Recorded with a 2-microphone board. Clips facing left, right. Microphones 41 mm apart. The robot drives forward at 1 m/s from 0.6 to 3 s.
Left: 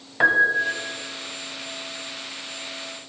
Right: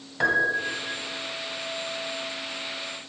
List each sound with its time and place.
0.2 s a piano: 25° left (ahead or behind), 1.2 m; by 1.0 s 20° left (ahead or behind), 1.4 m